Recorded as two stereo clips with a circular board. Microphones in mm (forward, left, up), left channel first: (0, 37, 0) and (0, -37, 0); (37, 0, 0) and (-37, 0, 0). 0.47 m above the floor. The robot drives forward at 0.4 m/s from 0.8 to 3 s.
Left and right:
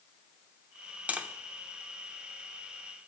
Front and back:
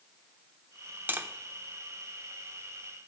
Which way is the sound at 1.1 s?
145° right.